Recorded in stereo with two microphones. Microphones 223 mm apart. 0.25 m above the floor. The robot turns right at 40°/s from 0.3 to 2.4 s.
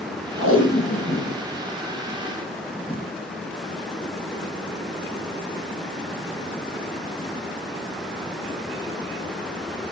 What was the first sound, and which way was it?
Tape being pulled, 75° left (ahead or behind).